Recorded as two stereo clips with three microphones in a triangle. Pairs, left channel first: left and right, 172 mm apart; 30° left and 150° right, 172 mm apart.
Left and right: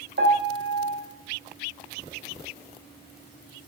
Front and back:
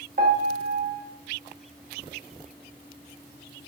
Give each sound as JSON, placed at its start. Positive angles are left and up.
{"t": 0.2, "sound": "a piano", "azimuth_deg": -105, "distance_m": 0.6}